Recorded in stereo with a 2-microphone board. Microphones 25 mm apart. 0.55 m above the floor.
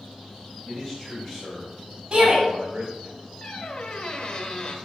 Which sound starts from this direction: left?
A squeak, at 3.4 s.